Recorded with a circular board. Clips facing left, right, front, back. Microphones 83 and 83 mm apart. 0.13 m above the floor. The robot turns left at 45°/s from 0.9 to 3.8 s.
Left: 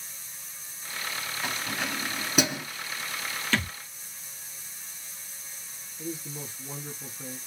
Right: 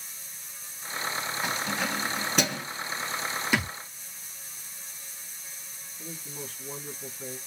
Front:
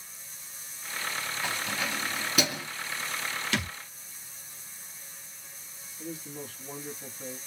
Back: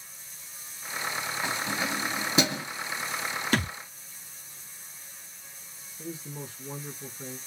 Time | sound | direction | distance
1.4 | keys jangling | 150° right | 1.2 m
3.5 | a thud | 160° right | 0.6 m
6.0 | a man speaking | 145° left | 1.3 m